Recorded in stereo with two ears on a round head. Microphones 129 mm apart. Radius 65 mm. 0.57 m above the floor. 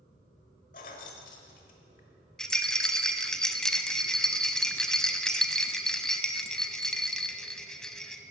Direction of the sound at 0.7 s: 60° left (ahead or behind).